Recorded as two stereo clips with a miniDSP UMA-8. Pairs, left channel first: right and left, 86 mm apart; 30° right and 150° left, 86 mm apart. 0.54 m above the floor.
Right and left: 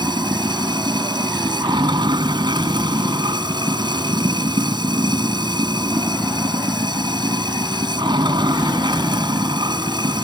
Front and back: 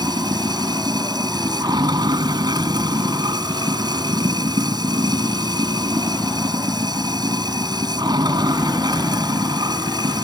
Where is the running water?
115° left.